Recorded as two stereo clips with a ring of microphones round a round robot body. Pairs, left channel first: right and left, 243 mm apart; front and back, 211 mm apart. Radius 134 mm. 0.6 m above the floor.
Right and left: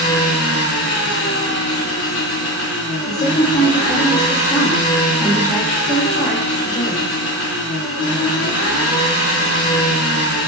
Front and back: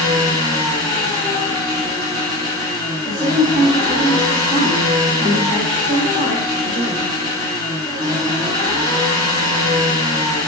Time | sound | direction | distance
0.0 | an engine running | 110° right | 0.7 m
3.1 | a woman speaking | 140° right | 0.9 m